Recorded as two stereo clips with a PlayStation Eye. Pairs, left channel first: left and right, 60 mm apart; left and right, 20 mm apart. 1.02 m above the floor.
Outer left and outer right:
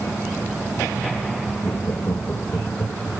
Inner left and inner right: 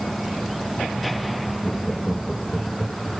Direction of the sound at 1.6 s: 55° left (ahead or behind).